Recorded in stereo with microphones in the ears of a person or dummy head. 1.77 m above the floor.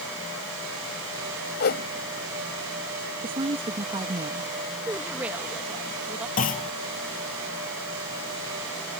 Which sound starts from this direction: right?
A woman speaking, at 3.2 s.